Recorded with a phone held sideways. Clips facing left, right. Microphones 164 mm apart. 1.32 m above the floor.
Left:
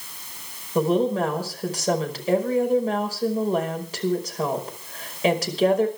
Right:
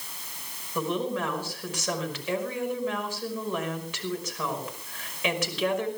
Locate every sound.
0.8 s a woman speaking: 35° left (ahead or behind), 5.5 m